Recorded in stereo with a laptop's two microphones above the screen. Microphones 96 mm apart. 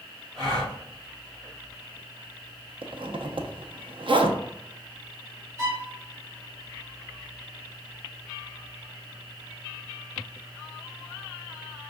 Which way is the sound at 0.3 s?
Centre (ahead or behind).